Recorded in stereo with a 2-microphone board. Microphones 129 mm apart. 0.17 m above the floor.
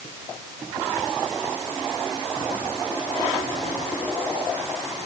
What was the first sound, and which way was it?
Only background noise.